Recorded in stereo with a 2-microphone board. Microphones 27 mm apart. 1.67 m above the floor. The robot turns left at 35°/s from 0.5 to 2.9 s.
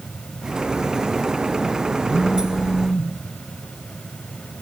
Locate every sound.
2.1 s a phone buzzing: 60° left (ahead or behind), 1.9 m; by 3.1 s 40° left (ahead or behind), 1.9 m